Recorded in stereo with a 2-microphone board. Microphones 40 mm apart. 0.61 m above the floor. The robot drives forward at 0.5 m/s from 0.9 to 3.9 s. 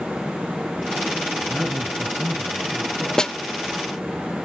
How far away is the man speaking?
About 9 m.